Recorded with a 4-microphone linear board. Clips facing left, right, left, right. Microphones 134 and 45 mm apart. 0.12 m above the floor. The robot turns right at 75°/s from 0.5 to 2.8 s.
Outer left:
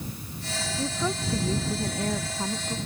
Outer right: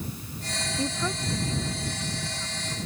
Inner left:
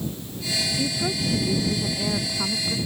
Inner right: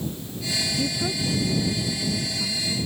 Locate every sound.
0.8 s a woman speaking: 10° right; by 2.8 s 140° left